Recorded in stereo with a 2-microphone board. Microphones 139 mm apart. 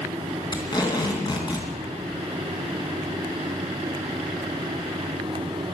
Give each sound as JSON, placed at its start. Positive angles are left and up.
{"t": 0.5, "sound": "tape being pulled", "side_deg": 35, "distance_m": 3.0}